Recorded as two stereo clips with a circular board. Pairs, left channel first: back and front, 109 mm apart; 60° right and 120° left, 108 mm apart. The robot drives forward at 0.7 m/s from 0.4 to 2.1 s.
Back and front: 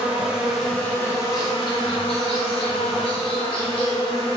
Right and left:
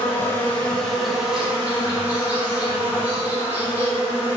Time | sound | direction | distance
0.0 | an insect | 55° right | 0.7 m